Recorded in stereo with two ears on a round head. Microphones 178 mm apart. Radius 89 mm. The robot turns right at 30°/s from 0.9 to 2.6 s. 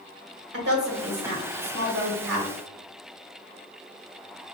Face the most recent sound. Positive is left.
turn(degrees=-65)